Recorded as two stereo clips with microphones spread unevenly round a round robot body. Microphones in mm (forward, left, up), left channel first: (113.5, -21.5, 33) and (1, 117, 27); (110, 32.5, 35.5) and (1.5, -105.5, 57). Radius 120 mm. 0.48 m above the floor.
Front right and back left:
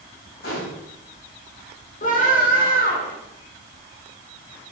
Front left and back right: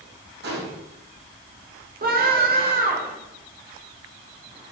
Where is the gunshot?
105° right, 4 m.